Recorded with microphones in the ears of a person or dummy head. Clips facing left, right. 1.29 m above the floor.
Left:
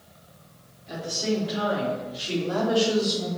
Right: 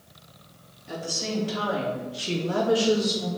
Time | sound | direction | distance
0.9 | a woman speaking | 60° right (ahead or behind) | 3 m